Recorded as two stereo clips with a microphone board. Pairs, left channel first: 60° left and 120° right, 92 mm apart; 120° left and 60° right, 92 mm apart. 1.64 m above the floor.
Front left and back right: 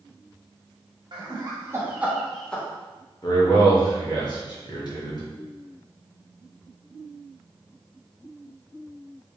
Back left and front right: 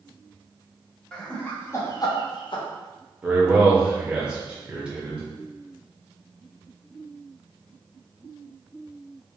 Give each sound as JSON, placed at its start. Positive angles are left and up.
{"t": 1.1, "sound": "laughter", "azimuth_deg": -160, "distance_m": 1.2}
{"t": 3.2, "sound": "a man speaking", "azimuth_deg": 20, "distance_m": 1.3}